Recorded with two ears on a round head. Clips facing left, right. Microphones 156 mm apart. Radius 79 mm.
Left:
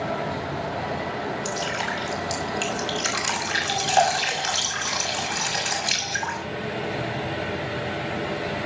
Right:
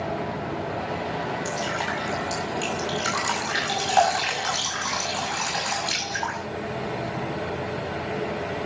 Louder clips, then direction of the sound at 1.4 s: Even; 25° left (ahead or behind).